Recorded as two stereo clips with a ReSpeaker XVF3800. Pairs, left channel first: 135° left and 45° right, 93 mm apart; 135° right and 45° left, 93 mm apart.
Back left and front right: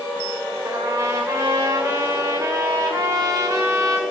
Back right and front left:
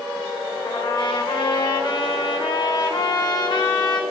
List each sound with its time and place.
0.7 s a trumpet: 100° right, 1.9 m